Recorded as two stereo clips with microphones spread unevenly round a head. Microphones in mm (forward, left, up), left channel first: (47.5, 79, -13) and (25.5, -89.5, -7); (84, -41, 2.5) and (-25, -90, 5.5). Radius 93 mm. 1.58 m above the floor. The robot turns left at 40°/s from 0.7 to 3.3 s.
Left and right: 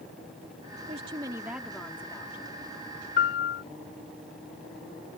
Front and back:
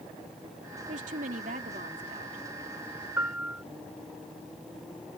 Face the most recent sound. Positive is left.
turn(degrees=120)